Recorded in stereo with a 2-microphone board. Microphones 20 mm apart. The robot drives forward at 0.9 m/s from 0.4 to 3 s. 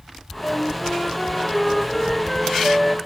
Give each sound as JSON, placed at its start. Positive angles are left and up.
{"t": 0.4, "sound": "a flute", "side_deg": 65, "distance_m": 0.6}